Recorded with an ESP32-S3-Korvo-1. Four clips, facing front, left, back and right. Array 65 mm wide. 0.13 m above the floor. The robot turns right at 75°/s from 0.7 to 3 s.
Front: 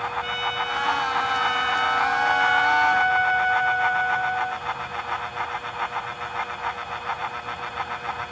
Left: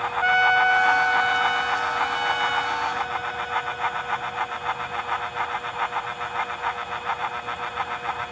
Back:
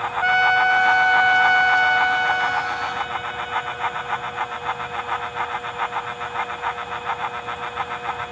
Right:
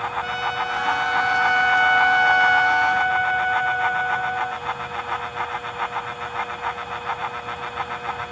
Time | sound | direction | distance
0.2 | a trumpet | 145° left | ?